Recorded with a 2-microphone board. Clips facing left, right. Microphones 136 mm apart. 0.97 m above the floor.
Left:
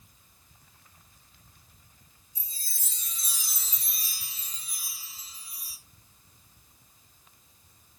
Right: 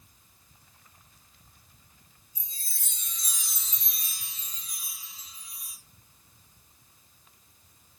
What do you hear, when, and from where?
2.4 s a chime: centre (ahead or behind), 3.5 m